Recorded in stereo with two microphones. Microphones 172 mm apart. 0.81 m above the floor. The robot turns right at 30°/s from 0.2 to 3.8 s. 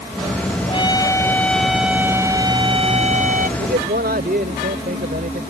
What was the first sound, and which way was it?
A trumpet, 150° left.